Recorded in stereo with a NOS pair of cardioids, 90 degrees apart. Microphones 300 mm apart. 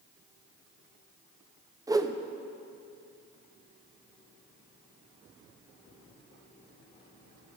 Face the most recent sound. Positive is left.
turn(degrees=-10)